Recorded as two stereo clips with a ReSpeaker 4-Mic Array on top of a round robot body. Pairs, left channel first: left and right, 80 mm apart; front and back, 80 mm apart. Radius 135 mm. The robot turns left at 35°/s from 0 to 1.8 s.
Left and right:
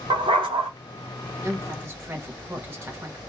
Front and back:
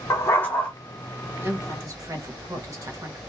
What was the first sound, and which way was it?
A dog barking, 60° right.